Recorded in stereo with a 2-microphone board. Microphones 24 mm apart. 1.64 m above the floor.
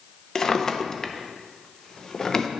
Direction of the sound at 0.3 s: 25° left (ahead or behind).